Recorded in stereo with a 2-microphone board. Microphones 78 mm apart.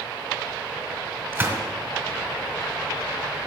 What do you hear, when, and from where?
1.3 s a gunshot: 30° right (ahead or behind), 1.7 m